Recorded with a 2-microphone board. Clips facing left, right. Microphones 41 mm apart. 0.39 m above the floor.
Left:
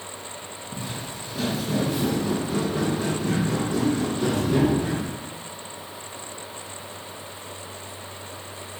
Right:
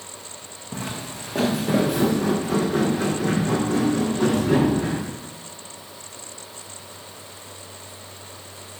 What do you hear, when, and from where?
0.7 s footsteps: 70° right (ahead or behind), 1.5 m; by 5.1 s 60° right (ahead or behind), 4.5 m